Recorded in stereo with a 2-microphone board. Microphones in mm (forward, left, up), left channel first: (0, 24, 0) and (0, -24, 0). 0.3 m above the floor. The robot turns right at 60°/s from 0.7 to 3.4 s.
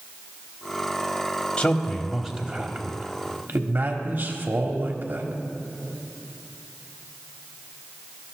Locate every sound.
1.6 s a man speaking: 150° left, 1.3 m; by 5.3 s 100° right, 1.3 m